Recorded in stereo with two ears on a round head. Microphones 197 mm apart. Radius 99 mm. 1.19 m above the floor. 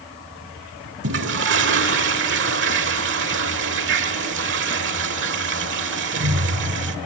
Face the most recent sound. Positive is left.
turn(degrees=-55)  # may be behind; listen again after turning